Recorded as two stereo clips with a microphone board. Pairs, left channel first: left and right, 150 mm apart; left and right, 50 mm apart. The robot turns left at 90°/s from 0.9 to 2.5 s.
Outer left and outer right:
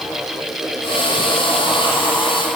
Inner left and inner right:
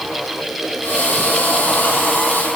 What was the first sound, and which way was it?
Only background noise.